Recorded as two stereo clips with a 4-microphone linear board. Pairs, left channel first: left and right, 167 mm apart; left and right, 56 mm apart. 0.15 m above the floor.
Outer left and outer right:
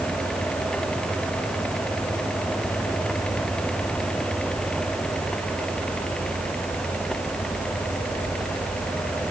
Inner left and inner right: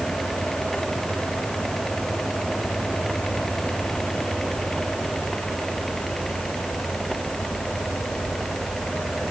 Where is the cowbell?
No cowbell in this recording.